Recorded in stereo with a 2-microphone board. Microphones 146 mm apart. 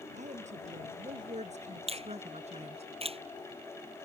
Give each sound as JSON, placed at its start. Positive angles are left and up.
{"t": 0.1, "sound": "a woman speaking", "side_deg": -55}
{"t": 1.9, "sound": "a finger snap", "side_deg": -45}